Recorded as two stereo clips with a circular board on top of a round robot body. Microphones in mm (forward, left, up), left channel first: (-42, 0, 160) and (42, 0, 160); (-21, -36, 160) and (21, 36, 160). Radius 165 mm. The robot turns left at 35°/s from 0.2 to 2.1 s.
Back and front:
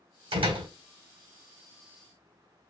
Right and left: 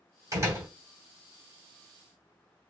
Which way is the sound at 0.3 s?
5° left.